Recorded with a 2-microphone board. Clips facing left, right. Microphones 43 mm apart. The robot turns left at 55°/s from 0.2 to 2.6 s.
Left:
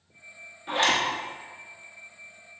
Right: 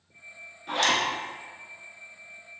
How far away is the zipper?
About 1.2 m.